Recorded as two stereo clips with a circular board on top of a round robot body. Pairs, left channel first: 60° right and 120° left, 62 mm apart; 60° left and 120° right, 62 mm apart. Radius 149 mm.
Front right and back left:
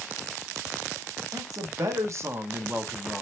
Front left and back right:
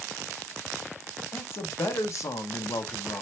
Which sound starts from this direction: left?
A man speaking, at 1.3 s.